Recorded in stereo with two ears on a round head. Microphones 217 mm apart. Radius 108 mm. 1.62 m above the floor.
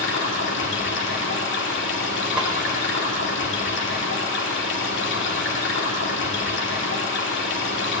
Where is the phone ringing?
No phone ringing in this recording.